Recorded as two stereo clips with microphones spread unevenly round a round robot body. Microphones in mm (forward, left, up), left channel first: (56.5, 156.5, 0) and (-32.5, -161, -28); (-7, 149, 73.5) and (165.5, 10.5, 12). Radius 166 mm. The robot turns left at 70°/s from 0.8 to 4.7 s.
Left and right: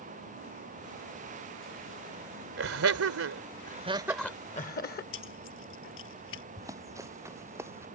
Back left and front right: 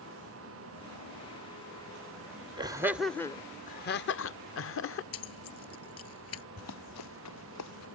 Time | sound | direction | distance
2.6 | laughter | 80° right | ?
5.1 | keys jangling | 130° left | ?
6.6 | running footsteps | 175° left | ?